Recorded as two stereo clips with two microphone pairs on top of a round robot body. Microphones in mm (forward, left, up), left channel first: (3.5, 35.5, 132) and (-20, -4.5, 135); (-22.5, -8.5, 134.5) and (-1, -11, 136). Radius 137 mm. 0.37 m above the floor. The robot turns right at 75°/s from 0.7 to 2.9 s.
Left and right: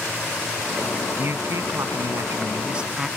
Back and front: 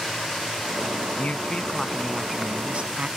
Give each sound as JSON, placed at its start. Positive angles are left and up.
{"t": 1.2, "sound": "a man speaking", "azimuth_deg": -170}